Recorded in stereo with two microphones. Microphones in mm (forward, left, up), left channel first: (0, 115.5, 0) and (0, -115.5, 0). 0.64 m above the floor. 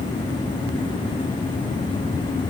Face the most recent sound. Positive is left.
No sound to turn to.